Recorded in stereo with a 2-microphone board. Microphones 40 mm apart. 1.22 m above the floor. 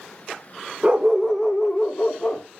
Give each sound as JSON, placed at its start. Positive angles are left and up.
{"t": 0.8, "sound": "a dog barking", "side_deg": -25, "distance_m": 1.2}